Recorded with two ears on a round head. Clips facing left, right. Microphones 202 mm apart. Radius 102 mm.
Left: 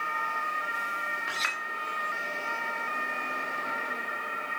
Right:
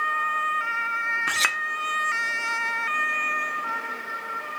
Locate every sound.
1.3 s a clink: 60° right (ahead or behind), 1.2 m